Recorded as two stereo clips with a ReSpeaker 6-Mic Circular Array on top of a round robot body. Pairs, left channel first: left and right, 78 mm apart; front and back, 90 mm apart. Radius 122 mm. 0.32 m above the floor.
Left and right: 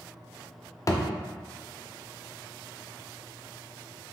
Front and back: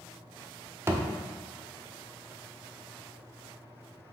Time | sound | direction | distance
0.9 | a thud | 125° left | 0.7 m